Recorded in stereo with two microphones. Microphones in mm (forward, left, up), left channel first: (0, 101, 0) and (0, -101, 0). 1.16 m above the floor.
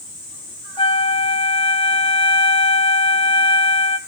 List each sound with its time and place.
0.8 s a flute: 25° left (ahead or behind), 1.0 m